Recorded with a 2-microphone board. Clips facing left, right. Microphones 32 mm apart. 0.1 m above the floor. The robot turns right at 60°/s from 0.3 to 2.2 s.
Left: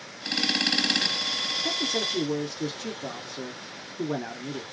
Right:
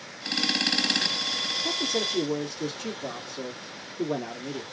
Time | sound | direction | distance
1.6 | a man speaking | 15° left (ahead or behind) | 1.1 m